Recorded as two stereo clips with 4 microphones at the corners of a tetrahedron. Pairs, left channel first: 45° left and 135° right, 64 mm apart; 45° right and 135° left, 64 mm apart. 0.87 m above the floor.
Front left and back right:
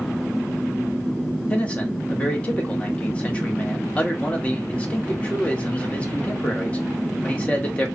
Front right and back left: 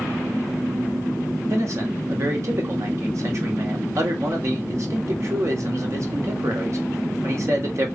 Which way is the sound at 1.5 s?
110° left.